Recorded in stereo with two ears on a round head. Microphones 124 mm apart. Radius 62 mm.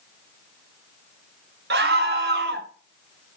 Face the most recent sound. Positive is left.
turn(degrees=-80)